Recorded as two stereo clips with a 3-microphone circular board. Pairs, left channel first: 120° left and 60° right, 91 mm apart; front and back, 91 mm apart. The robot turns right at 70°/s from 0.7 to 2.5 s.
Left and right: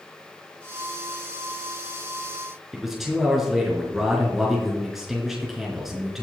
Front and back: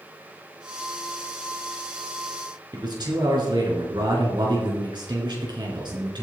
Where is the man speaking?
145° right, 3.5 m.